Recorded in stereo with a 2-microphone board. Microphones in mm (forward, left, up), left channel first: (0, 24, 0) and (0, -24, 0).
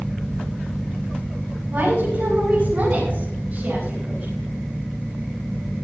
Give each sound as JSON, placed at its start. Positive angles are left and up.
{"t": 1.7, "sound": "a woman speaking", "side_deg": -50, "distance_m": 9.0}